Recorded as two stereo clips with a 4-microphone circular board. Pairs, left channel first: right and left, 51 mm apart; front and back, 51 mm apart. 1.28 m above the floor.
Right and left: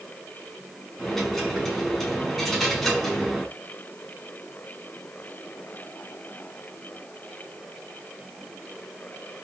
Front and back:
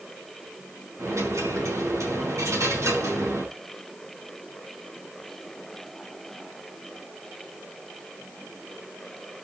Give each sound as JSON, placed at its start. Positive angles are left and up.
{"t": 1.0, "sound": "a dropped coin", "azimuth_deg": -175, "distance_m": 5.0}